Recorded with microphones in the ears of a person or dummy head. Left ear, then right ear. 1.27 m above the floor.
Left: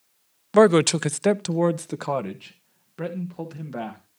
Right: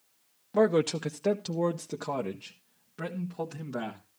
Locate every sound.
0.5 s a man speaking: 60° left (ahead or behind), 0.5 m; by 4.0 s 15° left (ahead or behind), 1.8 m